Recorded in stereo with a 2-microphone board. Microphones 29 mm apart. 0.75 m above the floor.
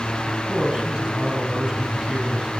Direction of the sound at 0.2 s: 30° right (ahead or behind).